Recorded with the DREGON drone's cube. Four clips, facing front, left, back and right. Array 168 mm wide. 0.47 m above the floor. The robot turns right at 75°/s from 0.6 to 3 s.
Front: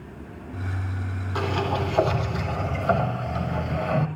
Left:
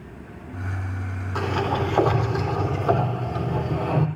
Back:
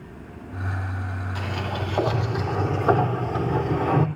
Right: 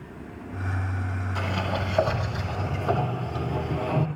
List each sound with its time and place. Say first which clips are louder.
1.4 s a sliding door: left 6 dB, front 6 dB; 55° left, 4 m; by 4.1 s straight behind, 4 m